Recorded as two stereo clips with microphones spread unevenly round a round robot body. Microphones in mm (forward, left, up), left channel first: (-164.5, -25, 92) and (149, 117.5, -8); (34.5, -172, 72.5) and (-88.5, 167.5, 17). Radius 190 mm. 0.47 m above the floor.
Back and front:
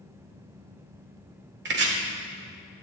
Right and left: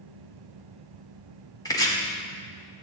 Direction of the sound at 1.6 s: 15° left.